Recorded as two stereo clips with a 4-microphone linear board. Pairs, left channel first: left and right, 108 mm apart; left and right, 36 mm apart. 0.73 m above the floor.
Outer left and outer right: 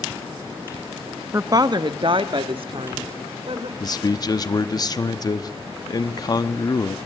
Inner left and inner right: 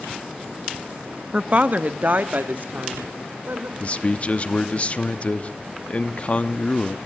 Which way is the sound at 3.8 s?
40° left (ahead or behind).